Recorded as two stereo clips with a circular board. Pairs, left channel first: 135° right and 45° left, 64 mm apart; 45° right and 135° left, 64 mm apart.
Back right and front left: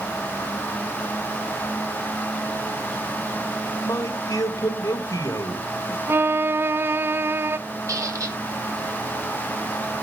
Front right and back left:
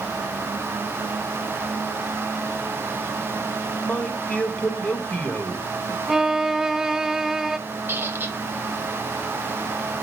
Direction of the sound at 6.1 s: 55° left.